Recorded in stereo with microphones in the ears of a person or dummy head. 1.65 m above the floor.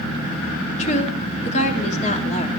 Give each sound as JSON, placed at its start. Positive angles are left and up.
{"t": 0.8, "sound": "a woman speaking", "side_deg": 45, "distance_m": 3.0}